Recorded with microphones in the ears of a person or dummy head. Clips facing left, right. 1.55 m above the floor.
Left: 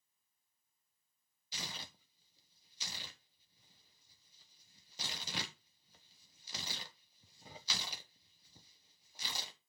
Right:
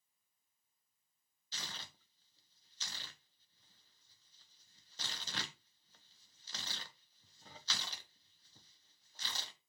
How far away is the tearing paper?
About 1.2 m.